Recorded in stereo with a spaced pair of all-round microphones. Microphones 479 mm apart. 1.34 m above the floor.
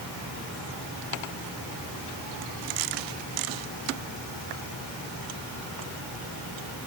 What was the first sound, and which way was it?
Only background noise.